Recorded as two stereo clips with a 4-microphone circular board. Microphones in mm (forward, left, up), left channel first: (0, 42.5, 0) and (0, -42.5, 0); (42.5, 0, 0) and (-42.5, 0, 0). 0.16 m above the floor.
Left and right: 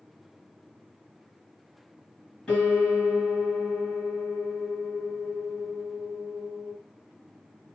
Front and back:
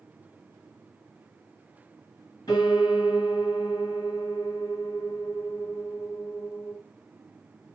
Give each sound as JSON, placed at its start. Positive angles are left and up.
{"t": 2.5, "sound": "a piano", "azimuth_deg": 15, "distance_m": 2.5}